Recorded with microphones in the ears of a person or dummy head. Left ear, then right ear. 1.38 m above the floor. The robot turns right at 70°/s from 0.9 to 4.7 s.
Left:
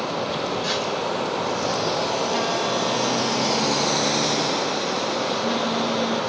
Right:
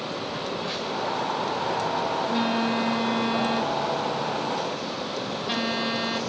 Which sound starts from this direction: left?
A phone buzzing, at 0.3 s.